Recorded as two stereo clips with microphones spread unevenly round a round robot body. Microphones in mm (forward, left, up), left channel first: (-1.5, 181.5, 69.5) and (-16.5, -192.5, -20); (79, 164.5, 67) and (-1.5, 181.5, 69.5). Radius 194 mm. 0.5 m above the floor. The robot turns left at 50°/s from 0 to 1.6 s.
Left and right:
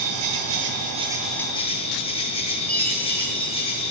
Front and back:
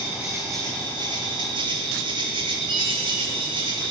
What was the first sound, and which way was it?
An insect, 110° right.